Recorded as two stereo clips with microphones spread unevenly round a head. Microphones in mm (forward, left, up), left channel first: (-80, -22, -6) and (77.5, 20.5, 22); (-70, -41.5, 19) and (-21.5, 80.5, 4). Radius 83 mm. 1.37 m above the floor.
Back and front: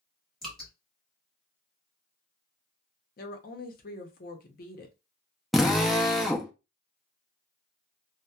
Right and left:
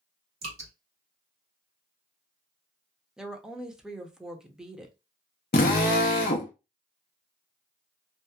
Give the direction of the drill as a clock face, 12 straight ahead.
2 o'clock.